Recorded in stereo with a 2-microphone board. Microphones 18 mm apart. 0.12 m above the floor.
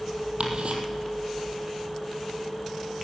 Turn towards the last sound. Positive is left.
turn(degrees=-65)  # may be behind; listen again after turning